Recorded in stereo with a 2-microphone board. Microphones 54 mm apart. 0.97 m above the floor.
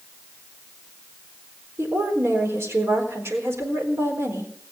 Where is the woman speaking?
55° right (ahead or behind), 4 m.